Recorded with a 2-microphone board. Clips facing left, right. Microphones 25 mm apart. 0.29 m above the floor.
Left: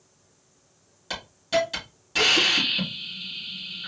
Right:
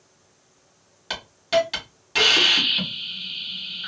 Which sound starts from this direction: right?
A hiss, at 1.1 s.